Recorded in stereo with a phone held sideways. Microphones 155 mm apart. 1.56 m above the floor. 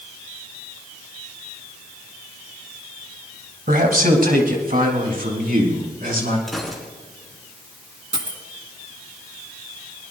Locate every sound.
3.7 s a man speaking: 70° right (ahead or behind), 2.0 m
6.5 s a gunshot: centre (ahead or behind), 3.5 m
8.1 s a dropped coin: 30° right (ahead or behind), 1.7 m